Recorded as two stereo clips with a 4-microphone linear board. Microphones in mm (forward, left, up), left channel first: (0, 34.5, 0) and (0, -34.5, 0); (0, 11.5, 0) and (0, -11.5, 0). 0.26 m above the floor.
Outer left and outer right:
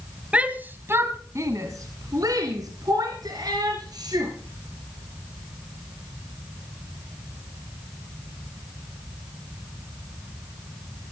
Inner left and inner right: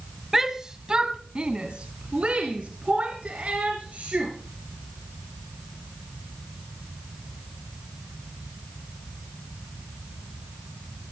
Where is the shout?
20° right (ahead or behind), 1.4 m; by 4.3 s 75° right (ahead or behind), 4.5 m.